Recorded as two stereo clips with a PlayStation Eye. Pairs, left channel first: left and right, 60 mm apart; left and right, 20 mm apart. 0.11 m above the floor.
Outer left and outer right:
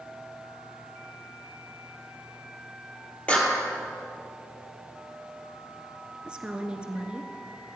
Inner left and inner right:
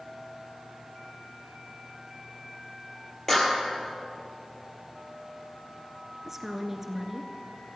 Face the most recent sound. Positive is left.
turn(degrees=-15)  # may be behind; listen again after turning